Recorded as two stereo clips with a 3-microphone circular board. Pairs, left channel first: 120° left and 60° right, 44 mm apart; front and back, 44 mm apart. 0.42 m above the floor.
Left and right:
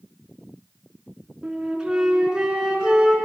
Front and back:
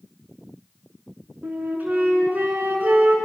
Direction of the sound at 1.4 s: 135° right.